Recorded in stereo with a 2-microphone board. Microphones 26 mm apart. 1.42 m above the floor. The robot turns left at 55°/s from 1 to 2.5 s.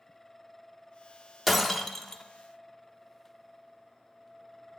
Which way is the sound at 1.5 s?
175° right.